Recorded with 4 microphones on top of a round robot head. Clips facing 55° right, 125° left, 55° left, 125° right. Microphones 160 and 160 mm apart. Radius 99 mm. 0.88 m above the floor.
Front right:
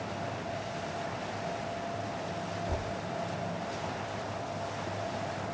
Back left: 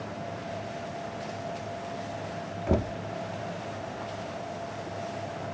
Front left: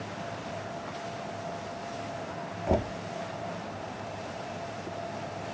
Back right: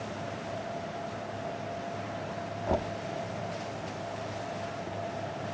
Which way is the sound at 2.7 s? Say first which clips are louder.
Back left 8 dB, front left 3 dB; 130° left.